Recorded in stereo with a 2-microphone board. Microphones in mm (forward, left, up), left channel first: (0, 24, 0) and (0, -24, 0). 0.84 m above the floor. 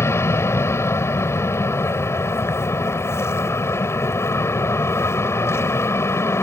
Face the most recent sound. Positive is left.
turn(degrees=65)  # may be behind; listen again after turning